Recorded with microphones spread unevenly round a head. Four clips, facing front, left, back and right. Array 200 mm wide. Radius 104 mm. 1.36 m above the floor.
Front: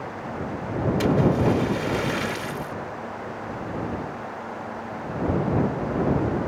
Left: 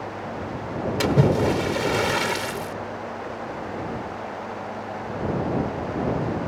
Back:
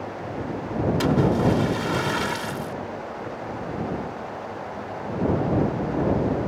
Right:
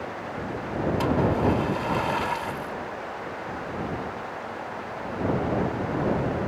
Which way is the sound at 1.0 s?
100° left.